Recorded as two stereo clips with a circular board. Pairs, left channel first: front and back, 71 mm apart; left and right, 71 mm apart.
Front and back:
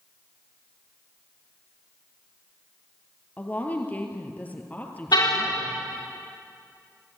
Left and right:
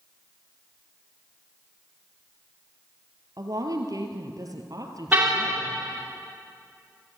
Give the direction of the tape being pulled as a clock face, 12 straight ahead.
I don't hear tape being pulled.